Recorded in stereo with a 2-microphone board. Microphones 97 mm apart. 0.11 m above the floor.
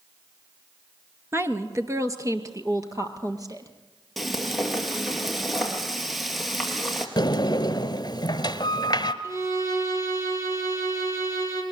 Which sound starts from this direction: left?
A sliding door, at 7.2 s.